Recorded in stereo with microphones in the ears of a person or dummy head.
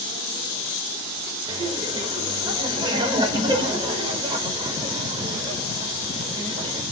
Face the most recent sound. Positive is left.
turn(degrees=-25)  # may be behind; listen again after turning